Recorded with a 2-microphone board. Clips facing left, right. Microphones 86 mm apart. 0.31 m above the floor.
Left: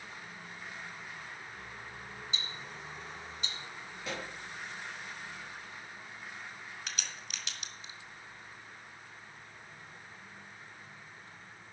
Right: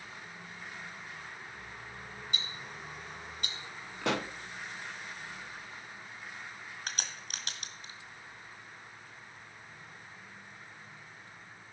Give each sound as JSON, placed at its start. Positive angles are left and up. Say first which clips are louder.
{"t": 2.3, "sound": "ticking", "louder": "right 1 dB", "side_deg": -55, "distance_m": 1.9}
{"t": 4.0, "sound": "a pop", "louder": "right 9 dB", "side_deg": -75, "distance_m": 0.5}
{"t": 6.9, "sound": "a crack", "louder": "right 5 dB", "side_deg": -55, "distance_m": 1.8}